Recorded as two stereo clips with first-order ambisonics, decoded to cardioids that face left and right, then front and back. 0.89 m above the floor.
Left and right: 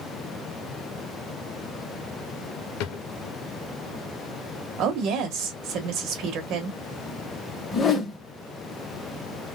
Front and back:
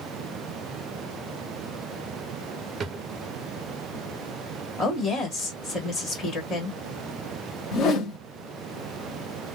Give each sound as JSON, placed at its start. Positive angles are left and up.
{"t": 2.8, "sound": "a drawer", "azimuth_deg": 110, "distance_m": 0.5}
{"t": 4.8, "sound": "a woman speaking", "azimuth_deg": -65, "distance_m": 1.6}
{"t": 7.7, "sound": "a whoosh", "azimuth_deg": 35, "distance_m": 0.8}